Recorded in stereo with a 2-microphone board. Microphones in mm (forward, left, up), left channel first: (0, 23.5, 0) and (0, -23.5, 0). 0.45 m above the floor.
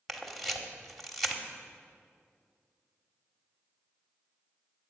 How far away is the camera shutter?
About 1.0 m.